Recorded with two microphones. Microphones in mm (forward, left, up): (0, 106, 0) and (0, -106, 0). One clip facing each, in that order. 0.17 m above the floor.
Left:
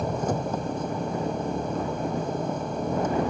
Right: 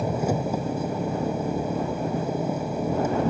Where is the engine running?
10° right (ahead or behind).